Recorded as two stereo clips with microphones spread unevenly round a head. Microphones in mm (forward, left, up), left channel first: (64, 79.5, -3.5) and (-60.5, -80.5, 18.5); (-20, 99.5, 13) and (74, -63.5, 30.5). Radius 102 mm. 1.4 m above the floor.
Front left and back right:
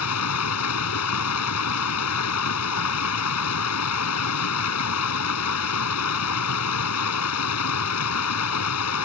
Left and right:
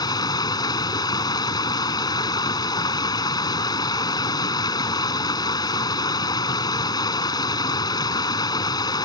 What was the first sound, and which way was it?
Running water, 50° left.